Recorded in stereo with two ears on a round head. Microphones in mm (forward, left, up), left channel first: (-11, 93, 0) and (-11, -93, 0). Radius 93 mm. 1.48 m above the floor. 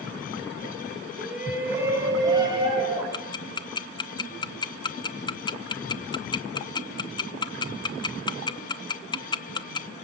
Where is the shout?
5° right (ahead or behind), 4.5 m; by 3.0 s 25° right (ahead or behind), 6.5 m.